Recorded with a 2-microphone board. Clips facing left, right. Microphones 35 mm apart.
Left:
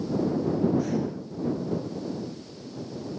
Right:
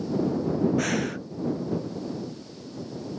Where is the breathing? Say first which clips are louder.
Right 1 dB; 80° right.